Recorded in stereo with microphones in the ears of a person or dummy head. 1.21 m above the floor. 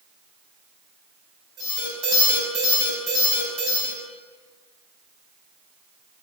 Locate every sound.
1.6 s an alarm: 70° right (ahead or behind), 5 m